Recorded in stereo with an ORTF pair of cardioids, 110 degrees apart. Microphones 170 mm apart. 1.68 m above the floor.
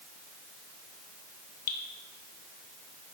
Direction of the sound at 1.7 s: 60° left.